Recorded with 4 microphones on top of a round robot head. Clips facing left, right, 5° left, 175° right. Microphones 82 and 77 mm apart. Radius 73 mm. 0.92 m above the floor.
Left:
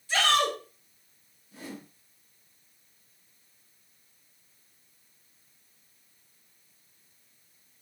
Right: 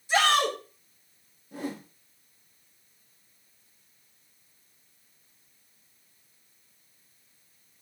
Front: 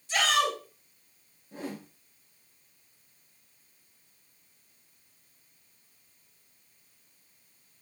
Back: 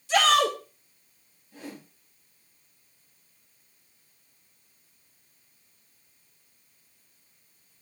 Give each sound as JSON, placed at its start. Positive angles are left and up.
{"t": 0.1, "sound": "a shout", "azimuth_deg": -165, "distance_m": 3.0}
{"t": 1.5, "sound": "a whoosh", "azimuth_deg": -55, "distance_m": 2.5}